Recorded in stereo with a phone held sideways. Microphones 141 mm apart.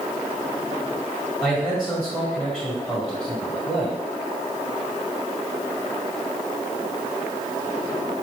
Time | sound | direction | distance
1.4 | a man speaking | 5° right (ahead or behind) | 1.5 m